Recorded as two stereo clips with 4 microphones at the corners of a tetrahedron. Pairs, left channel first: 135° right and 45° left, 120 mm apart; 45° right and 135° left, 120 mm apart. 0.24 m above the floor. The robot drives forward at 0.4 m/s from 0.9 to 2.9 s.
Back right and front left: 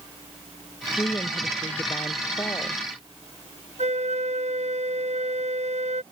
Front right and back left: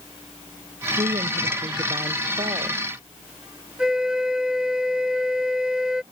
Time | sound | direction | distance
1.0 | a woman speaking | 165° left | ?
3.8 | a flute | 50° left | ?